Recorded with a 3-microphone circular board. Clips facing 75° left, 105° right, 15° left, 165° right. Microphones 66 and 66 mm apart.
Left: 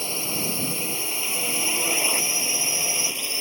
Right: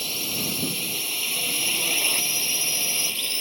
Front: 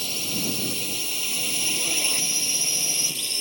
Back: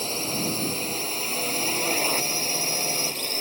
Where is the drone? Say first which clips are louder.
Left 2 dB, back 3 dB; 140° left; by 3.4 s 150° left.